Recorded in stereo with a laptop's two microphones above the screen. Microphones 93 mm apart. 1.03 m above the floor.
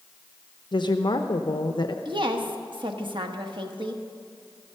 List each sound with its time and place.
0.7 s a woman speaking: 55° left (ahead or behind), 0.8 m
2.0 s a woman speaking: 65° right (ahead or behind), 1.2 m